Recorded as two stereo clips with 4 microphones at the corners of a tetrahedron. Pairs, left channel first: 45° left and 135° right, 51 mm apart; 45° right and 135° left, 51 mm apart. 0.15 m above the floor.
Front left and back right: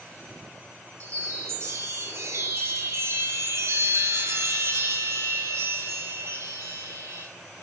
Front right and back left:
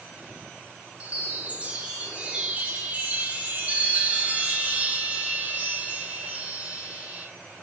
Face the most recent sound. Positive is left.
turn(degrees=-165)